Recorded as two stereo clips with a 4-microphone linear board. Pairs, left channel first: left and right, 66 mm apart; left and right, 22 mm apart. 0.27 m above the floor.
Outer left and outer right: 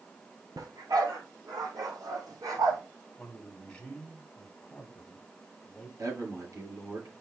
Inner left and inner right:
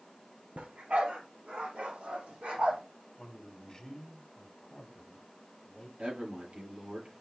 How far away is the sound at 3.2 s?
About 2 m.